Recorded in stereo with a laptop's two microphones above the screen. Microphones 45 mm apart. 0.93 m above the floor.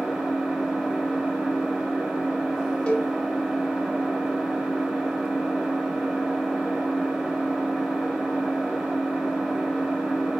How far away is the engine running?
About 0.8 m.